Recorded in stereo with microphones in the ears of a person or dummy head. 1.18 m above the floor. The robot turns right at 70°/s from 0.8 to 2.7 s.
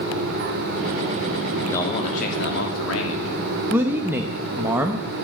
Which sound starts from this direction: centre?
A man speaking, at 3.7 s.